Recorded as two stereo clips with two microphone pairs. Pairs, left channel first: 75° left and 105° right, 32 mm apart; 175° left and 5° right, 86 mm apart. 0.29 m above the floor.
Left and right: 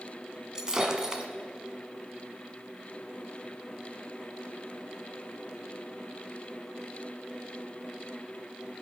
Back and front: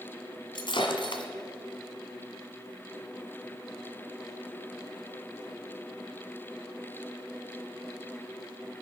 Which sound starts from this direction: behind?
Breaking glass, at 0.6 s.